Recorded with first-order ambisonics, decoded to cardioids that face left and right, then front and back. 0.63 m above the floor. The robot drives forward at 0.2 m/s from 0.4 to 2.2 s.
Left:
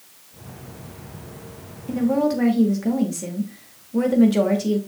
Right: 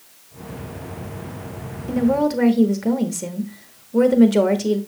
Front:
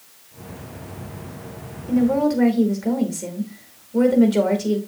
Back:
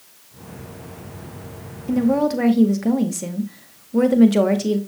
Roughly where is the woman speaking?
Behind right.